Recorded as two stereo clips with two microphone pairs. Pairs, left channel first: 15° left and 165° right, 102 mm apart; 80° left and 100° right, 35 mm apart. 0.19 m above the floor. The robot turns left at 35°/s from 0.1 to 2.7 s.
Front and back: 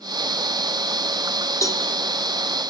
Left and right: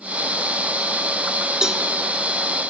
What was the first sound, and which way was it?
A cowbell, 30° right.